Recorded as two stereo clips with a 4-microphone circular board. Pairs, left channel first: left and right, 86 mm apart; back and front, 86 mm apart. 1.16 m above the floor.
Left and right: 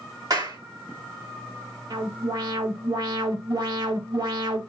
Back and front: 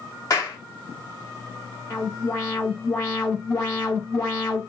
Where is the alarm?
120° right, 5.5 m.